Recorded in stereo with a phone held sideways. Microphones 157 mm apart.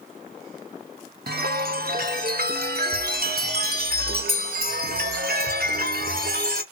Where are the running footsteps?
I don't hear running footsteps.